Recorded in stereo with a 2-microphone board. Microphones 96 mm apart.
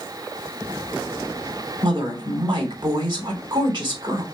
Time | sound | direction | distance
1.8 | a woman speaking | 50° right (ahead or behind) | 3 m